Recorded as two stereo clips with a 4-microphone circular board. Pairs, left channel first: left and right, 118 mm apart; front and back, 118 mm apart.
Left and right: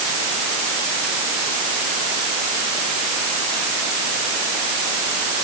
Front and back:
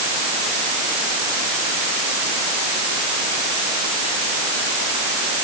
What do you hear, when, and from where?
Only background noise.